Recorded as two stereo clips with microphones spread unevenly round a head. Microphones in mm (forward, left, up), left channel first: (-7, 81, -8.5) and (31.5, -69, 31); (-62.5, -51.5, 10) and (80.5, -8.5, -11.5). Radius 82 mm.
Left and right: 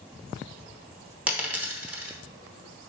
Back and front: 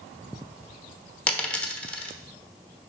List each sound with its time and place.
1.3 s a dropped coin: 110° right, 1.0 m